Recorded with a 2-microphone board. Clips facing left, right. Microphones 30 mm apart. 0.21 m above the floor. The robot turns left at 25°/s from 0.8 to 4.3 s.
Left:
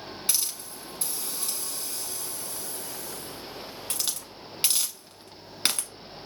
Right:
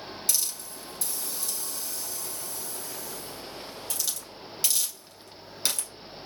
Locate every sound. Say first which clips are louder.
0.3 s a hiss: left 1 dB; 30° left (ahead or behind), 0.9 m; by 5.9 s 45° left (ahead or behind), 0.9 m